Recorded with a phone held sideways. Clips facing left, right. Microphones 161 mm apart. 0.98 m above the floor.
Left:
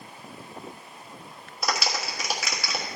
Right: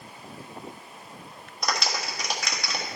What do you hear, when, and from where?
1.6 s a clap: 5° left (ahead or behind), 1.2 m